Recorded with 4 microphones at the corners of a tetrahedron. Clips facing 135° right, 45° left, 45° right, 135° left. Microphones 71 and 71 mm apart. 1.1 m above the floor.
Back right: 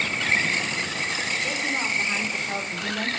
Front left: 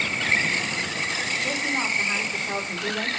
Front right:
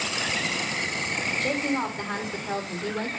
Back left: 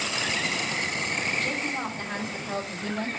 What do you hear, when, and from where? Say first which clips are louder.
1.4 s a woman speaking: front left 2 dB, front right 3 dB; 40° right, 3 m; by 3.1 s 25° right, 2.5 m